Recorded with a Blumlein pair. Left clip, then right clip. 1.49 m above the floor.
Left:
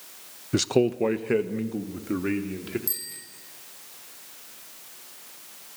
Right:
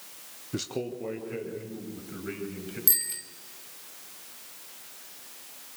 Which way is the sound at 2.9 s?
65° right.